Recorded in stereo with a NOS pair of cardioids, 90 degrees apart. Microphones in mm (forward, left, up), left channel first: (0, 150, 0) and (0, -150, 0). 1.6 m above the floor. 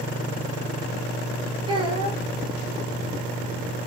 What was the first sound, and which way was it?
A child speaking, 15° right.